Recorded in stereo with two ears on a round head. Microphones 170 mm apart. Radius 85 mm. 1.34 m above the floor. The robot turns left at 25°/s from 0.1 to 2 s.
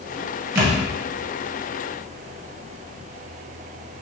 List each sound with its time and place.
0.6 s a thud: 20° right (ahead or behind), 1.4 m; by 0.8 s 15° right (ahead or behind), 1.4 m